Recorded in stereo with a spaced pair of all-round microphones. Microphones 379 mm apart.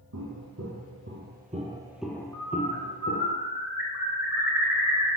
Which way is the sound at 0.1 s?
50° right (ahead or behind).